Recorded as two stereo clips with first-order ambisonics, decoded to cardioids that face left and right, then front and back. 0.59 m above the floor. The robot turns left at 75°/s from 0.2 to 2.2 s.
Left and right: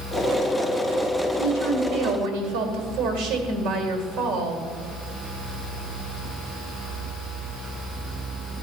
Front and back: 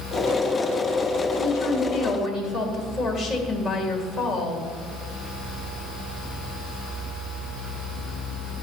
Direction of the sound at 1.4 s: 35° right.